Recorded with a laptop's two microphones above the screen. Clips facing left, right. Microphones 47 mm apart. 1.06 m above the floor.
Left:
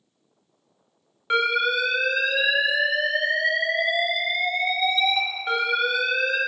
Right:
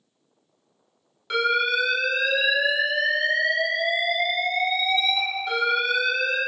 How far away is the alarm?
About 0.7 m.